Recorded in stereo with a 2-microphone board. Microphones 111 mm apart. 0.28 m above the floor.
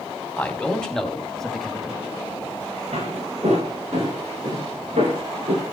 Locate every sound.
0.4 s a man speaking: 10° left (ahead or behind), 2 m; by 2.1 s 5° right (ahead or behind), 1.6 m
2.9 s footsteps: 75° right (ahead or behind), 8.5 m; by 5.6 s 85° right, 11 m